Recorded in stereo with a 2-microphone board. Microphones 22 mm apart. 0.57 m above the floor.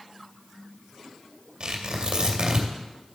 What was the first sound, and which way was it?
Tearing paper, 45° right (ahead or behind).